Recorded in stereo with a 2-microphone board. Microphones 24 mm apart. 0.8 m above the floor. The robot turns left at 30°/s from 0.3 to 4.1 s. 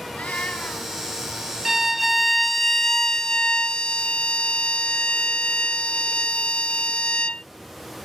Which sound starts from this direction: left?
A cat meowing, at 0.1 s.